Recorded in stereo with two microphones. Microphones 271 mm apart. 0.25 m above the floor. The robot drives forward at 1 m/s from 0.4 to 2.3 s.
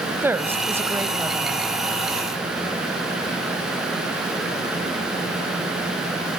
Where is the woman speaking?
5° right (ahead or behind), 1.0 m.